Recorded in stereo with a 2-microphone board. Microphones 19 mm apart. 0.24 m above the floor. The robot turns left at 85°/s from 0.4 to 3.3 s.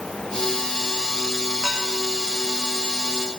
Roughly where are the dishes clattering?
Right.